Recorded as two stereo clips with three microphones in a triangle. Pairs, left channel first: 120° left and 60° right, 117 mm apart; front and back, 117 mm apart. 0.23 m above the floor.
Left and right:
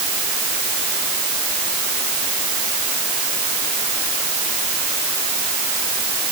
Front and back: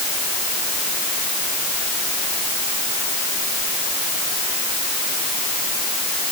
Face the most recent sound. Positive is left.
No sound to turn to.